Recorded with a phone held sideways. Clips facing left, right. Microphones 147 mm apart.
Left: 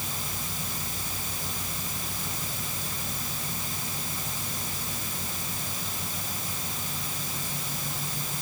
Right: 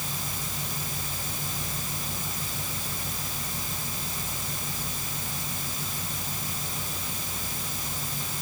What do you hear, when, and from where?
Only background noise.